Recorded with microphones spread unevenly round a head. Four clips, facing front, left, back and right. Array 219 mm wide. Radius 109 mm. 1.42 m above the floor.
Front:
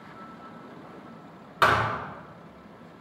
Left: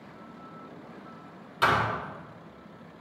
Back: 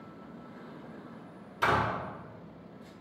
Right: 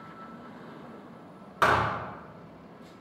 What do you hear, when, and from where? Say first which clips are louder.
1.6 s a thud: right 1 dB, front 5 dB; 30° right, 4 m